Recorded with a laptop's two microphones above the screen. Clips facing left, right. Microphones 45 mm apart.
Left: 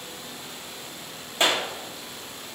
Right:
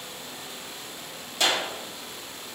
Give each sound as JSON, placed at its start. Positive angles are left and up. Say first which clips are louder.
{"t": 1.4, "sound": "a clap", "louder": "left 2 dB", "side_deg": 30, "distance_m": 2.5}